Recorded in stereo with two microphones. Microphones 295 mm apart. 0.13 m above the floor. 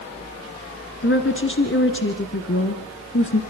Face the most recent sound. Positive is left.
turn(degrees=40)  # may be behind; listen again after turning